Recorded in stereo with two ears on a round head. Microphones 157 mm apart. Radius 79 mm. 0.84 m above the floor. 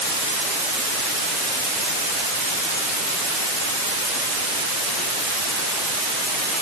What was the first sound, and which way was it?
Only background noise.